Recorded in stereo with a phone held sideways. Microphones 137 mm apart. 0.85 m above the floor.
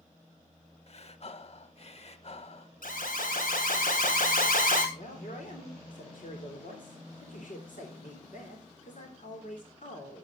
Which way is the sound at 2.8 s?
85° left.